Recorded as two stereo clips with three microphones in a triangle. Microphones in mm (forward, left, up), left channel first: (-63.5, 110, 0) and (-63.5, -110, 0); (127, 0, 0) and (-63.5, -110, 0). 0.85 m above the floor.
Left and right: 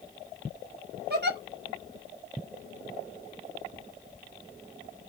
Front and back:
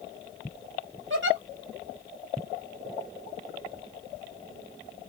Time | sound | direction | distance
1.1 | a giggle | 130° right | 1.1 m